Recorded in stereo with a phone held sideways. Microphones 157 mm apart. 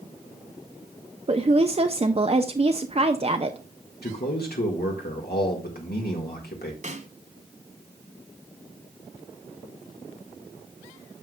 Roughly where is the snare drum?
Right.